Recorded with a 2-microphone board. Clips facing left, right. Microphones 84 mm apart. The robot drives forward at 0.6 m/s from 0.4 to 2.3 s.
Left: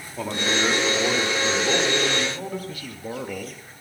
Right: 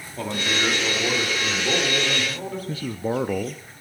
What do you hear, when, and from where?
0.2 s a man speaking: 5° left (ahead or behind), 1.8 m
2.7 s a man speaking: 30° right (ahead or behind), 0.5 m